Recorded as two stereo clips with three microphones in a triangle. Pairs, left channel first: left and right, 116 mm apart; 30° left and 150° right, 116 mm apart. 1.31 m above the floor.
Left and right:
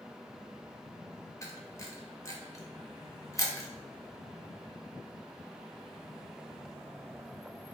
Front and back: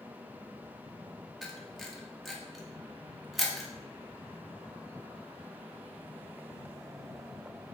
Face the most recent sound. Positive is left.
turn(degrees=120)